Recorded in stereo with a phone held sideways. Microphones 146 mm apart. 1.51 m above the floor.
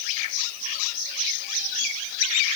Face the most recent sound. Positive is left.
No sound to turn to.